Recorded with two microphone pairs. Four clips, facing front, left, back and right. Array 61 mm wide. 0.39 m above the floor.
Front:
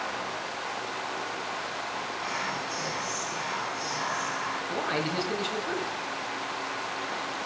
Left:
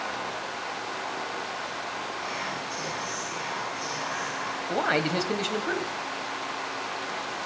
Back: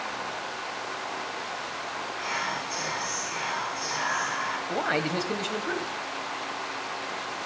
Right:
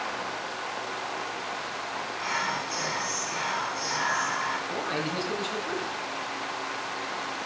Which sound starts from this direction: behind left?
A man speaking, at 4.7 s.